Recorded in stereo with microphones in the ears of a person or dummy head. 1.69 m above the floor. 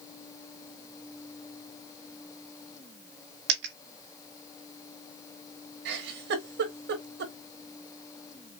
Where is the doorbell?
No doorbell in this recording.